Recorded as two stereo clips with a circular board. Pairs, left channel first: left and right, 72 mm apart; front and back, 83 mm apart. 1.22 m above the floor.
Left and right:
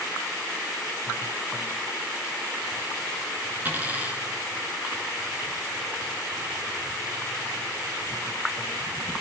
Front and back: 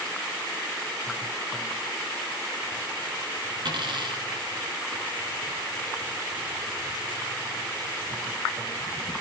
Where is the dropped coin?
160° right, 4 m.